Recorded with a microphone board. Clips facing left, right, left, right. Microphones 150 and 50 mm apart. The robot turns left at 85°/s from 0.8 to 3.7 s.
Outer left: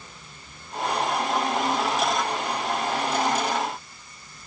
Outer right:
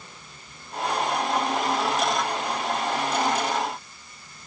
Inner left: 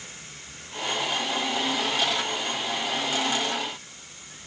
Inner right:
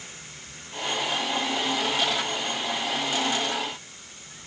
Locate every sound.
Only background noise.